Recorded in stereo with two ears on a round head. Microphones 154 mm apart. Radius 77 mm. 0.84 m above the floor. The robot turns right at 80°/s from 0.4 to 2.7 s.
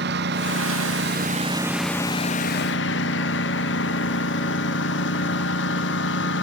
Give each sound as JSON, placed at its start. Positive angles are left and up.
{"t": 0.0, "sound": "a lawn mower", "azimuth_deg": -115}